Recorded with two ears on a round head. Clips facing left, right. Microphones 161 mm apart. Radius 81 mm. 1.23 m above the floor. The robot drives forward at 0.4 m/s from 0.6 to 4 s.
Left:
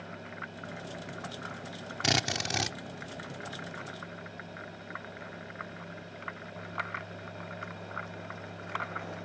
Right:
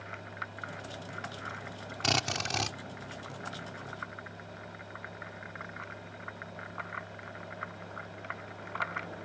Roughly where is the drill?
Centre.